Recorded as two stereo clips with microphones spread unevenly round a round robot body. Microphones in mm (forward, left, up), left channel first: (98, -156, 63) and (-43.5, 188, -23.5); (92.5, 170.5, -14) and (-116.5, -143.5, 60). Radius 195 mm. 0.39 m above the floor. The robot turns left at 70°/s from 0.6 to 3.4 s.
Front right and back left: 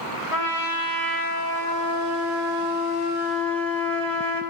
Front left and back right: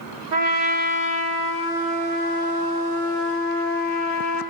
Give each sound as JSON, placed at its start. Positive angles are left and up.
{"t": 0.3, "sound": "a trumpet", "azimuth_deg": -135, "distance_m": 1.6}